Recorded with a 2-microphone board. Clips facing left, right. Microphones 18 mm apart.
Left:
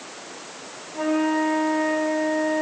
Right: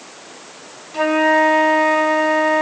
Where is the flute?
50° right (ahead or behind), 1.1 m.